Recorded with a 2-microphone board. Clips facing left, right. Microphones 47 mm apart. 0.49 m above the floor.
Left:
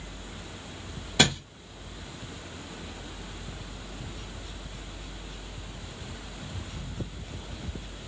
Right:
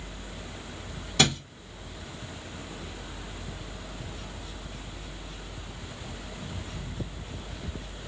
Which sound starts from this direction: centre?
A thud, at 1.2 s.